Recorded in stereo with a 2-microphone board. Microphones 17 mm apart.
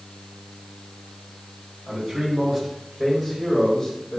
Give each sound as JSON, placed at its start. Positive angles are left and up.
{"t": 1.9, "sound": "a man speaking", "side_deg": -40, "distance_m": 1.9}